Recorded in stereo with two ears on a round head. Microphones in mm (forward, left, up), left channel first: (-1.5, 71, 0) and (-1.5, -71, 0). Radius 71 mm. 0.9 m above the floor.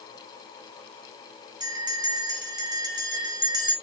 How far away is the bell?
About 2.5 m.